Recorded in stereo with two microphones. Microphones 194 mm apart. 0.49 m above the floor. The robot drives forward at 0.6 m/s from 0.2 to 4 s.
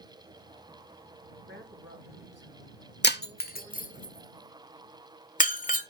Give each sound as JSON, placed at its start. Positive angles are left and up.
{"t": 1.5, "sound": "a woman speaking", "side_deg": -70, "distance_m": 3.0}
{"t": 3.0, "sound": "breaking glass", "side_deg": 60, "distance_m": 0.8}